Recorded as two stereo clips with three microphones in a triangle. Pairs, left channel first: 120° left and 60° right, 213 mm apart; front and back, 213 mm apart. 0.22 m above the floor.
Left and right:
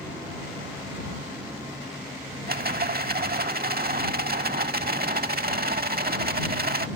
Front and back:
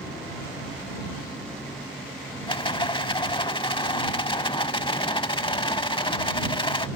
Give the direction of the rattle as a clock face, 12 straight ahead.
2 o'clock.